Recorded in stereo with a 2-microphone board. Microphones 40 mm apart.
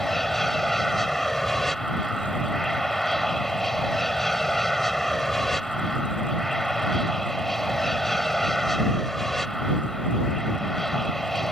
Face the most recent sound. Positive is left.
turn(degrees=10)  # may be behind; listen again after turning